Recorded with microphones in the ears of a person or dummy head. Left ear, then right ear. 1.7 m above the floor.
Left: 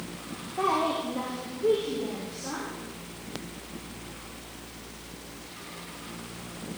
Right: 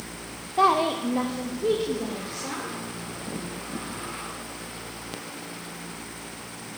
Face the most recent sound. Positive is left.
turn(degrees=-70)  # may be behind; listen again after turning